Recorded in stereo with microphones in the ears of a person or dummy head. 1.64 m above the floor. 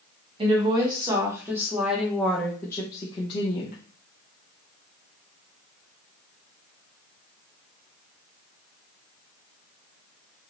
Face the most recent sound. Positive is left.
turn(degrees=45)  # may be behind; listen again after turning